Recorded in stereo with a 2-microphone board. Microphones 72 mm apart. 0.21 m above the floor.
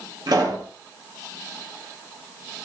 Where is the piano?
No piano in this recording.